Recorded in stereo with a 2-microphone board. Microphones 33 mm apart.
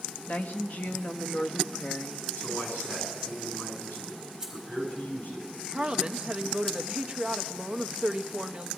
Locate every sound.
0.3 s a woman speaking: 45° left (ahead or behind), 0.8 m
2.4 s a man speaking: 65° left (ahead or behind), 8.5 m
4.4 s keys jangling: 25° right (ahead or behind), 4 m
5.7 s a woman speaking: 40° right (ahead or behind), 0.7 m